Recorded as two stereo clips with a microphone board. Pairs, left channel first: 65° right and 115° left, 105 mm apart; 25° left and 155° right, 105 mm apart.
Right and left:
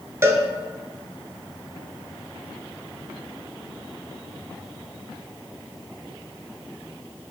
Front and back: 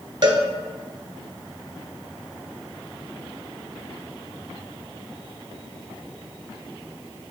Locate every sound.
0.2 s a cowbell: 175° left, 0.5 m